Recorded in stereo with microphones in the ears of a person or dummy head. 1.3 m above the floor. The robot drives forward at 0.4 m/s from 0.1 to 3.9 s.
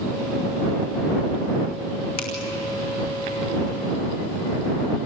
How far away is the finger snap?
About 2.5 m.